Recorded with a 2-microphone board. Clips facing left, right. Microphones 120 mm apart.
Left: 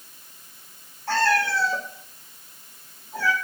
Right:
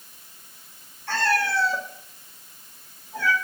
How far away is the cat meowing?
About 4 m.